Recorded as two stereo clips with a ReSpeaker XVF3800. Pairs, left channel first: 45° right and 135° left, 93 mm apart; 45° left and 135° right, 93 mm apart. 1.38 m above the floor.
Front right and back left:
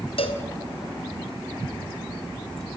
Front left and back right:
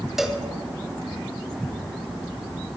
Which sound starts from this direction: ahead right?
A cowbell, at 0.2 s.